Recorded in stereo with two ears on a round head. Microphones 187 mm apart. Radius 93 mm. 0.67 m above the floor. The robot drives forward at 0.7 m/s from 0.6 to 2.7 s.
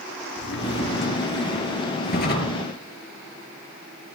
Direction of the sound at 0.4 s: 60° left (ahead or behind).